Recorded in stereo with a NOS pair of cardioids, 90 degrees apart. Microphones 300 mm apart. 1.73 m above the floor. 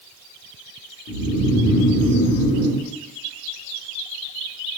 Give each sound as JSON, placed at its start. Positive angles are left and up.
{"t": 1.1, "sound": "snoring", "azimuth_deg": 60, "distance_m": 1.2}